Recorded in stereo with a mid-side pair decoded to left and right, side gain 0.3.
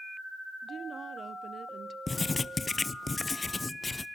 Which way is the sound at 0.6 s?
65° right.